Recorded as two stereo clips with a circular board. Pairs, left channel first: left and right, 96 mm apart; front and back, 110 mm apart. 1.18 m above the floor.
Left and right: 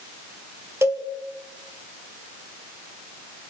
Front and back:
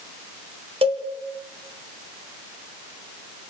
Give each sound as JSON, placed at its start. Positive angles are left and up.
{"t": 0.8, "sound": "a cowbell", "azimuth_deg": -150, "distance_m": 2.0}